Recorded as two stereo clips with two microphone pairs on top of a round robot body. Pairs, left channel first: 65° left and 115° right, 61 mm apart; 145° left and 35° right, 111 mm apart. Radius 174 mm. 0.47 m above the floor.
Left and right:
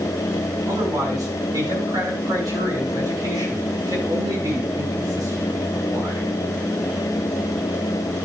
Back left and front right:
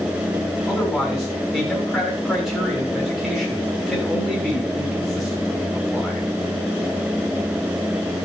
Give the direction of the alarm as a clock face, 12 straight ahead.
No alarm in this recording.